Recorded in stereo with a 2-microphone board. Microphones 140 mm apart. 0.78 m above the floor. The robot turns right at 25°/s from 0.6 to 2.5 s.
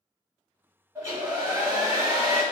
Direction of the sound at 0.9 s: 155° right.